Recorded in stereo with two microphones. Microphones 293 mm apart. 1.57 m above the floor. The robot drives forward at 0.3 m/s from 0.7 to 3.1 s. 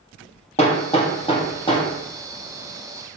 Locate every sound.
0.6 s hammering: 20° left (ahead or behind), 1.0 m; by 1.9 s 15° left (ahead or behind), 1.3 m